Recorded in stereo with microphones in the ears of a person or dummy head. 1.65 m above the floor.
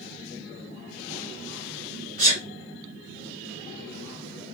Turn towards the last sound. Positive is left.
turn(degrees=-45)  # may be behind; listen again after turning